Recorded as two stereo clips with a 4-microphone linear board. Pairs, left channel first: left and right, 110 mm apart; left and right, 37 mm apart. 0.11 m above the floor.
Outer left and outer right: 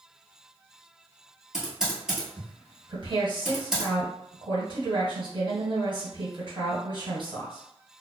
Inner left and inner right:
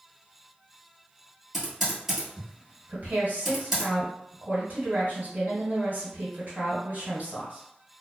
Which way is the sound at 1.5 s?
5° right (ahead or behind).